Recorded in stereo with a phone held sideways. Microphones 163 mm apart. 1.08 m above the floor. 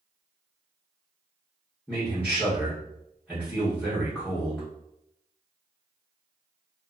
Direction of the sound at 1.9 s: 5° left (ahead or behind).